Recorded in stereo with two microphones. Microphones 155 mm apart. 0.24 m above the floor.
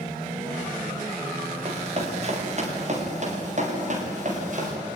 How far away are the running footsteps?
About 6 m.